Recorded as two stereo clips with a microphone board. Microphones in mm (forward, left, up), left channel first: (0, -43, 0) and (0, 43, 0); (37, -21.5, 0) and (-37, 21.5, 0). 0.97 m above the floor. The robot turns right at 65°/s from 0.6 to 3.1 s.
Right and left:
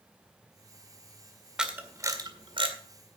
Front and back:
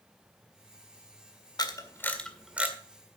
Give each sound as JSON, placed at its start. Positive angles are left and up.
{"t": 1.6, "sound": "a camera shutter", "azimuth_deg": 10, "distance_m": 1.9}